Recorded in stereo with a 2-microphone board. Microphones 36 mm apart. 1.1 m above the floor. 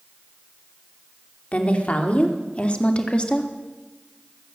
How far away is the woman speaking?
About 3 m.